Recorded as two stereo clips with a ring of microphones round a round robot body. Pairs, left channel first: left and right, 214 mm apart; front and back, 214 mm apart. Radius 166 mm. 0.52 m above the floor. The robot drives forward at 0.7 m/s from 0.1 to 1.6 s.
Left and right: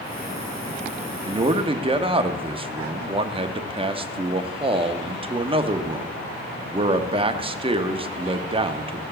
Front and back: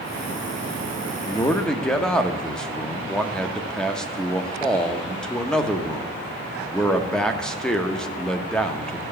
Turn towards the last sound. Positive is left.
turn(degrees=-80)